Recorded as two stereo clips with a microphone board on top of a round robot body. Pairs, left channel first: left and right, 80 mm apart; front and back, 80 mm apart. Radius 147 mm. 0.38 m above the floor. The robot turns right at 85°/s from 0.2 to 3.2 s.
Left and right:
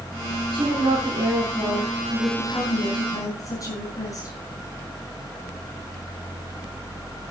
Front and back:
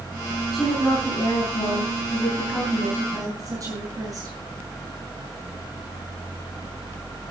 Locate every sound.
0.5 s a woman speaking: 95° right, 7 m; by 4.4 s 130° left, 7 m